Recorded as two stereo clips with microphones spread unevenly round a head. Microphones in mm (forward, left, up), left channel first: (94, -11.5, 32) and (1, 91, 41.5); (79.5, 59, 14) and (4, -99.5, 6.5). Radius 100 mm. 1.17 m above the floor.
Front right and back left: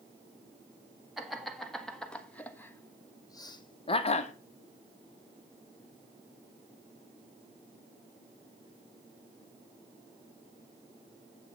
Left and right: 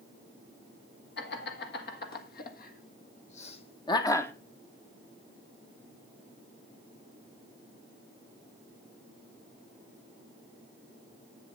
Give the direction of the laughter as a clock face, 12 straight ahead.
11 o'clock.